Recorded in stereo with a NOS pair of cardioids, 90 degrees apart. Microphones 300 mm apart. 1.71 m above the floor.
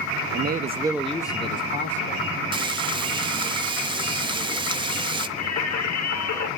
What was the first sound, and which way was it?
A man speaking, 40° right.